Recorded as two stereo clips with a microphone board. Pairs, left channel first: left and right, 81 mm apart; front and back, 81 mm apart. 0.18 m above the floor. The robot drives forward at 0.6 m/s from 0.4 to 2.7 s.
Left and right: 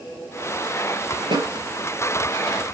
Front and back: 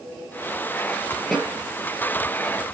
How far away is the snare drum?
About 3.5 m.